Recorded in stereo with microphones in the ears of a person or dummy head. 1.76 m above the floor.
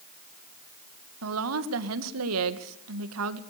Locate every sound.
1.2 s a woman speaking: 80° right, 1.9 m